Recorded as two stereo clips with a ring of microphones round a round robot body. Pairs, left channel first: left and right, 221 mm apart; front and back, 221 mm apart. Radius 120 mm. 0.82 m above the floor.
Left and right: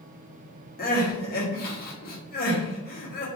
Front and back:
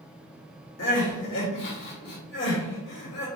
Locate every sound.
0.8 s crying: 45° left, 0.9 m